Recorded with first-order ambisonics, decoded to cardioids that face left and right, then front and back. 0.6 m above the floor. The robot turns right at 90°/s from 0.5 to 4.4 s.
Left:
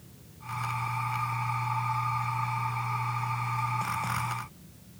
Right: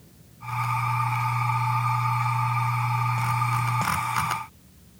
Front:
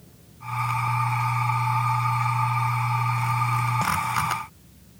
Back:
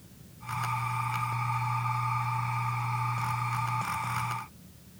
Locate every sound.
Only background noise.